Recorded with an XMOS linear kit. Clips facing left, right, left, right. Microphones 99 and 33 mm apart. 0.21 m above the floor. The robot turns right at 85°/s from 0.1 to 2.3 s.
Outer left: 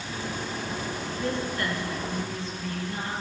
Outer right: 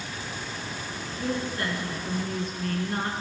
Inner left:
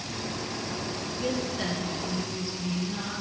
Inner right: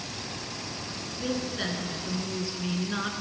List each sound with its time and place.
1.2 s a woman speaking: straight behind, 2.5 m; by 3.1 s 85° right, 2.5 m